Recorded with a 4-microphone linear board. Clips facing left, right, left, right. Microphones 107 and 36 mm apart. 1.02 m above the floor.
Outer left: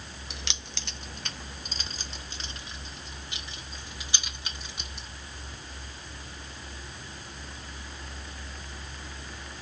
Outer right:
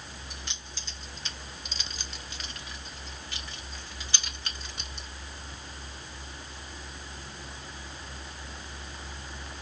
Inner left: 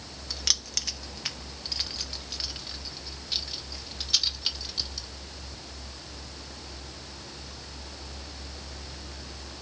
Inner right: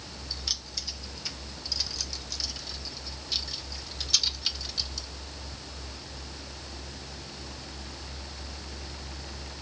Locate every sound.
0.3 s keys jangling: 80° left, 0.9 m; by 5.1 s 10° left (ahead or behind), 3 m